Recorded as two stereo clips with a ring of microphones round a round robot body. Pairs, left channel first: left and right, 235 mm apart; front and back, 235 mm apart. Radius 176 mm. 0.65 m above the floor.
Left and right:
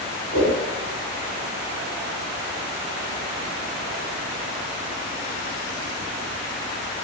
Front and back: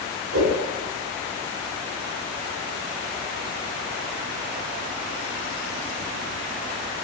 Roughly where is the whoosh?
Behind.